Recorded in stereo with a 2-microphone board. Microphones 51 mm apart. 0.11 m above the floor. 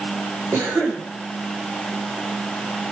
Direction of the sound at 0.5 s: 70° right (ahead or behind).